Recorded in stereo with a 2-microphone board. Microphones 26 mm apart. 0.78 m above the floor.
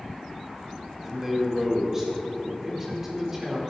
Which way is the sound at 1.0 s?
10° right (ahead or behind).